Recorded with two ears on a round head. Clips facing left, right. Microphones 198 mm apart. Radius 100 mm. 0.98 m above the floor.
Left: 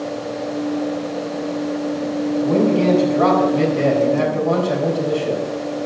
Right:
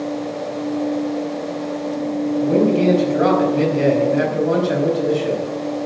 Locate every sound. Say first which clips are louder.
2.4 s a man speaking: right 1 dB; 20° right (ahead or behind), 5 m